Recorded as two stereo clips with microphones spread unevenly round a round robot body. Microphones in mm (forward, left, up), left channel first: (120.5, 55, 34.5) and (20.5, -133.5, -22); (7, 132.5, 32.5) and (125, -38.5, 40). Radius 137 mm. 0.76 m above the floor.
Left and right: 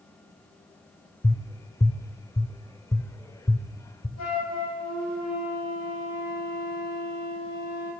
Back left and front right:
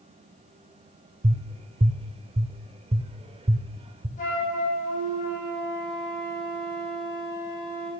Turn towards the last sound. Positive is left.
turn(degrees=70)